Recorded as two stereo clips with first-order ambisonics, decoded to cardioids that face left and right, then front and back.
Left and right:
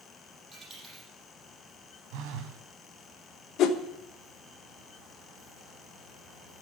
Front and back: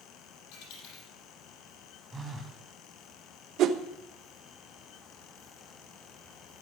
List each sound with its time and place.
0.5 s a dropped coin: 10° right, 6 m
2.1 s a phone buzzing: 100° right, 1.8 m
3.6 s a whoosh: 135° left, 1.0 m